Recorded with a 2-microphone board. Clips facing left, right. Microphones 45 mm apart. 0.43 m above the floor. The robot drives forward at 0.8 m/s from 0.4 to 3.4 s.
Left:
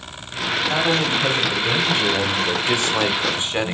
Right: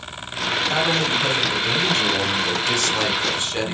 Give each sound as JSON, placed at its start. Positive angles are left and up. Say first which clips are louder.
{"t": 0.7, "sound": "a man speaking", "louder": "left 1 dB", "side_deg": 10, "distance_m": 2.5}